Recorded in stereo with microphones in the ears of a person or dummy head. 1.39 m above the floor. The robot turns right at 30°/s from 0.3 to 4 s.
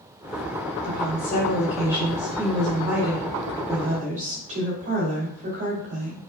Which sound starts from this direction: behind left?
A woman speaking, at 0.8 s.